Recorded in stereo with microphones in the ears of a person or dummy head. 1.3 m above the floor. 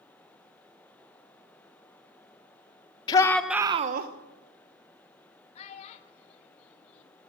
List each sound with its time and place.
3.1 s a shout: 20° left (ahead or behind), 0.9 m; by 4.1 s 60° right (ahead or behind), 0.8 m
5.5 s a child speaking: 30° left (ahead or behind), 1.3 m